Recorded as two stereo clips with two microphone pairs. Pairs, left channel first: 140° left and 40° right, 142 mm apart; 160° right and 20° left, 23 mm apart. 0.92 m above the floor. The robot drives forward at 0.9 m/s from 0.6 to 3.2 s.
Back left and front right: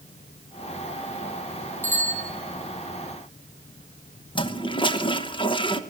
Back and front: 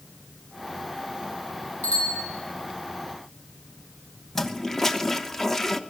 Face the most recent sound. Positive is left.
turn(degrees=145)